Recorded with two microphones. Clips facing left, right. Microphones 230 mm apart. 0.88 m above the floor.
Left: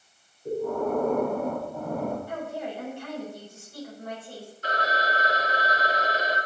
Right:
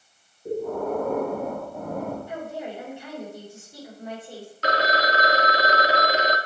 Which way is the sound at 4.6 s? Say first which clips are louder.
Right 6 dB; 80° right.